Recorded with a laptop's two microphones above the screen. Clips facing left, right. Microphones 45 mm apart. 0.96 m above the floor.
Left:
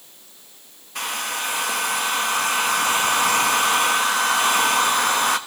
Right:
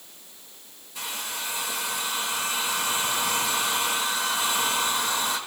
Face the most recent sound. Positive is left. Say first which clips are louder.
# left 7 dB
turn(degrees=60)  # may be behind; listen again after turning